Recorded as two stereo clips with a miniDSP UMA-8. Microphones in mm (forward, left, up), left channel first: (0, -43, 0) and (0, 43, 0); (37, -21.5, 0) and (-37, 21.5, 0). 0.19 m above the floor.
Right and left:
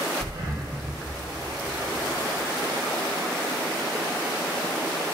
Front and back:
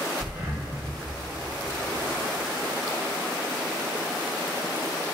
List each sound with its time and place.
0.2 s breathing: 90° left, 2.5 m